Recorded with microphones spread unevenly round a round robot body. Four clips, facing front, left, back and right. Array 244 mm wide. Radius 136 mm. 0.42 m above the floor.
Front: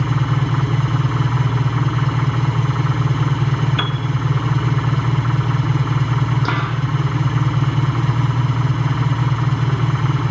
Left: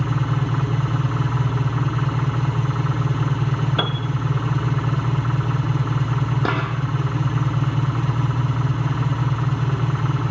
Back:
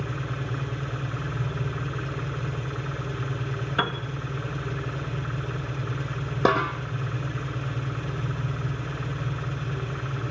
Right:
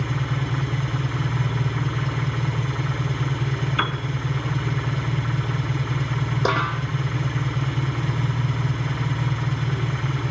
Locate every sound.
0.0 s an engine running: 25° left, 4.5 m
3.8 s a piano: 110° left, 1.9 m
6.5 s a snare drum: straight behind, 9 m